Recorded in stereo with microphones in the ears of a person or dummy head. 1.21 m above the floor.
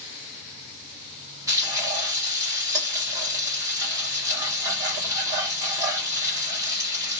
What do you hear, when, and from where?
1.5 s frying: 15° right (ahead or behind), 1.0 m